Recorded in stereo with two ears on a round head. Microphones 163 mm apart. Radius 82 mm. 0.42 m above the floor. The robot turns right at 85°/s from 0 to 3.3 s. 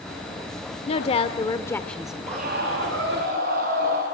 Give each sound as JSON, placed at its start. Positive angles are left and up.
{"t": 0.9, "sound": "a woman speaking", "azimuth_deg": 80, "distance_m": 1.0}
{"t": 2.3, "sound": "a scream", "azimuth_deg": -145, "distance_m": 4.5}